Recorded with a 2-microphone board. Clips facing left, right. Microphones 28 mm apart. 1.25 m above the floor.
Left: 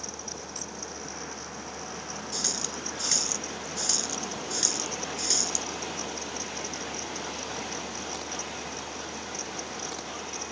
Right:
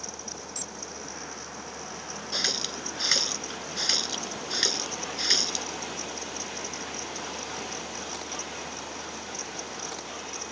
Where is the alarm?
80° right.